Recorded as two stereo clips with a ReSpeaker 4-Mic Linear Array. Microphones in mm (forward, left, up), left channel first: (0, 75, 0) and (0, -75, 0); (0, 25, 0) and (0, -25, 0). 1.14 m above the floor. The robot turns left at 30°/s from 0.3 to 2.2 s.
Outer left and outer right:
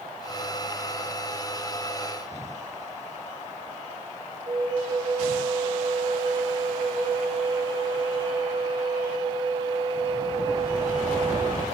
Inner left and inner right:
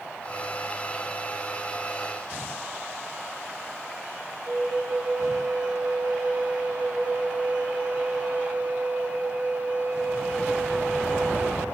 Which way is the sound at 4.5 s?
35° right (ahead or behind).